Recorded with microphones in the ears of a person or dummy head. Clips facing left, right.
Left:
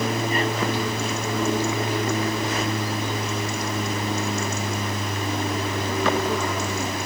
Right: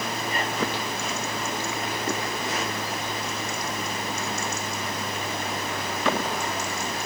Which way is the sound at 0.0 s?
70° left (ahead or behind).